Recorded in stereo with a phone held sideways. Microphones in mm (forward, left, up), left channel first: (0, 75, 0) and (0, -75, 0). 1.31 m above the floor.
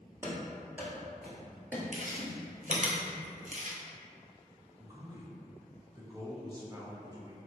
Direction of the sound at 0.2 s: 20° right (ahead or behind).